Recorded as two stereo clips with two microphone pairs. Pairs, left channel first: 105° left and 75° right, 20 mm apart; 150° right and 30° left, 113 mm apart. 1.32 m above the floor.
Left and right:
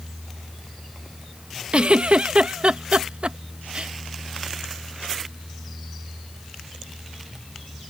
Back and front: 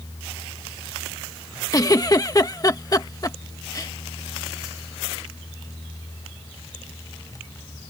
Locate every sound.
1.7 s a giggle: 95° right